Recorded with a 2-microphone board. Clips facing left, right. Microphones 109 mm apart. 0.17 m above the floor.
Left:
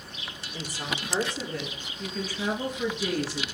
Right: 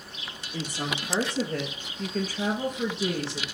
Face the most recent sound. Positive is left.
turn(degrees=-20)  # may be behind; listen again after turning